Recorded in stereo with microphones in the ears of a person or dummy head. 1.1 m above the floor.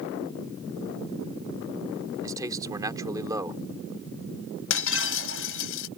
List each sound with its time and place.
2.2 s a man speaking: 20° right (ahead or behind)
4.7 s breaking glass: 75° left (ahead or behind)